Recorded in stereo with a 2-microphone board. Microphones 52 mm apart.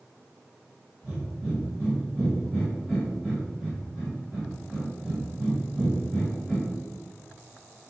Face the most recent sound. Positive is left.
turn(degrees=-15)  # may be behind; listen again after turning